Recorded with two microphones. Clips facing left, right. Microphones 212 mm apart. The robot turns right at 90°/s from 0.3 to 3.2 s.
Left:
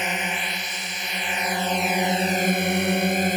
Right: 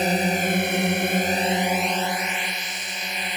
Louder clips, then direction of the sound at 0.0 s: Right 8 dB; 140° right.